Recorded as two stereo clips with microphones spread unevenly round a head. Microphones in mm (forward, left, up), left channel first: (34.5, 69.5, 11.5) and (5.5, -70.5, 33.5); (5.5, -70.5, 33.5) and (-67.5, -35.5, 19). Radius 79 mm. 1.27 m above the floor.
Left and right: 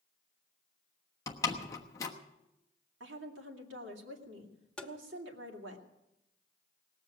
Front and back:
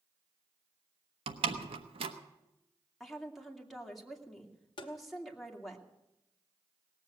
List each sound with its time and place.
1.3 s a door slam: 150° left, 1.1 m
3.0 s a woman speaking: 115° right, 2.5 m
4.8 s tapping: 10° right, 1.0 m